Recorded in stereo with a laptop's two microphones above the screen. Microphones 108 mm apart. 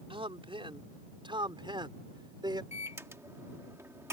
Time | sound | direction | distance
0.1 | a man speaking | 55° right (ahead or behind) | ?
2.7 | a microwave | 25° right (ahead or behind) | ?